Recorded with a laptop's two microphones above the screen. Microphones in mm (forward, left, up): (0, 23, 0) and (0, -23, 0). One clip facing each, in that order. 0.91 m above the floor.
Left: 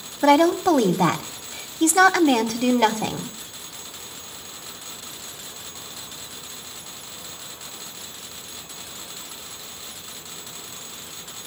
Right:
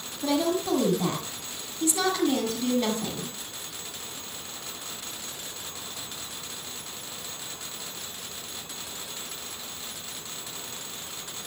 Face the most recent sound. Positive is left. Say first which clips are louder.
# left 10 dB
turn(degrees=75)  # may be behind; listen again after turning